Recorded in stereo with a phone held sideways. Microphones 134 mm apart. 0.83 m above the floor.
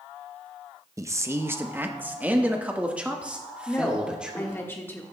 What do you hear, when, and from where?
1.0 s a man speaking: 25° right (ahead or behind), 0.6 m; by 4.6 s 5° right (ahead or behind), 2.5 m
3.7 s a woman speaking: 15° left (ahead or behind), 1.2 m